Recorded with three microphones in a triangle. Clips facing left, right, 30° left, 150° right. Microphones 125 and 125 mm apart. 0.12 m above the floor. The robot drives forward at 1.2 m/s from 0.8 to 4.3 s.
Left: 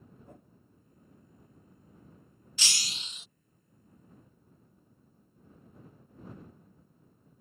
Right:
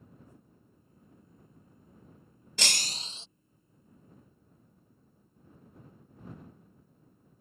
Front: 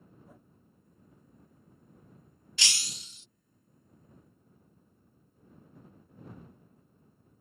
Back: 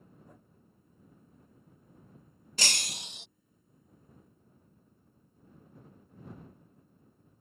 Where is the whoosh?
115° left.